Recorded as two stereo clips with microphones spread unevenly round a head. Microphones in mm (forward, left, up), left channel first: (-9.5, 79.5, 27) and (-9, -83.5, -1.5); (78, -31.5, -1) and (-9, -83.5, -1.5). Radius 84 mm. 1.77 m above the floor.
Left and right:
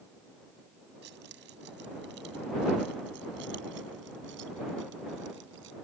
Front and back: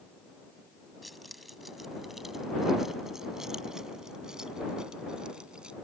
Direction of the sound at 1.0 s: 60° right.